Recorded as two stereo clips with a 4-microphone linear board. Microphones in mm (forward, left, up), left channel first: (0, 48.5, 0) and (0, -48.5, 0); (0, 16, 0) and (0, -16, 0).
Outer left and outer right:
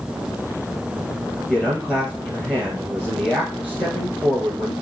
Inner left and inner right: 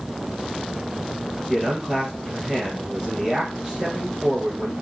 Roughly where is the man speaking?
Centre.